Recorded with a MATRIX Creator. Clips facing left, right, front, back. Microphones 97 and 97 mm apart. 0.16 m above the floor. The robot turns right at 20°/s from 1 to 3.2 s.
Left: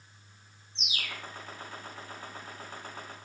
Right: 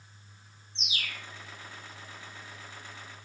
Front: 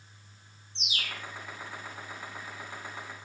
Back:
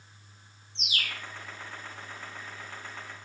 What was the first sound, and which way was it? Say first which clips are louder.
A bird: even, back 2 dB; straight behind.